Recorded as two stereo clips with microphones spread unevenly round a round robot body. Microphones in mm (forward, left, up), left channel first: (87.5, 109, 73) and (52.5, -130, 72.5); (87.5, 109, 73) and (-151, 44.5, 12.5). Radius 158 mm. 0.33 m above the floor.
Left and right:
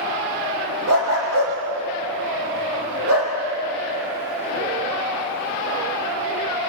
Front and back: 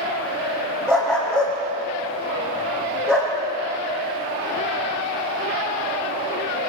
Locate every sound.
0.9 s a dog barking: 80° right, 5.5 m